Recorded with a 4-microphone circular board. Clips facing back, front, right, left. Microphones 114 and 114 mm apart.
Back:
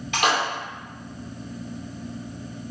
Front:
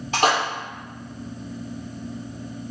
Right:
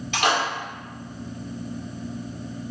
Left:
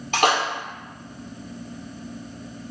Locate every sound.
0.1 s a splash: 50° left, 2.5 m